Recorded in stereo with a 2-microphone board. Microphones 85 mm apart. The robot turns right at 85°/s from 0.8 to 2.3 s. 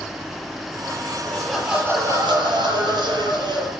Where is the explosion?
No explosion in this recording.